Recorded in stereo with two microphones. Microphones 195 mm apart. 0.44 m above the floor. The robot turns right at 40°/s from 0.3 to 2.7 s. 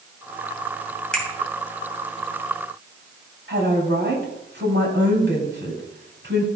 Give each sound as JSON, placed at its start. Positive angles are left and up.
{"t": 1.1, "sound": "a finger snap", "side_deg": 5, "distance_m": 2.5}
{"t": 3.5, "sound": "a woman speaking", "side_deg": -65, "distance_m": 3.5}